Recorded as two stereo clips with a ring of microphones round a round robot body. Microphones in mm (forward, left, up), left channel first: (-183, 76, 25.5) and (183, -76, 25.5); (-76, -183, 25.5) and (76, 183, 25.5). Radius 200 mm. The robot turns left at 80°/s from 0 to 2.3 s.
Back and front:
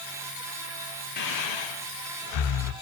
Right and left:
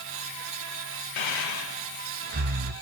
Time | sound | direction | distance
1.2 | breathing | 135° right | 0.9 m